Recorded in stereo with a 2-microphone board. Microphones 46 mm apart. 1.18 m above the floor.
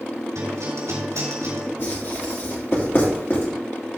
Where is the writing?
50° left (ahead or behind), 3 m.